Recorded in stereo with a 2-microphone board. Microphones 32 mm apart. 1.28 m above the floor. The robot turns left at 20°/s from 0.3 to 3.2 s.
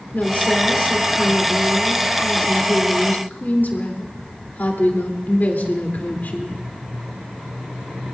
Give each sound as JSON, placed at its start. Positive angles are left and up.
{"t": 0.1, "sound": "a woman speaking", "azimuth_deg": 125, "distance_m": 3.0}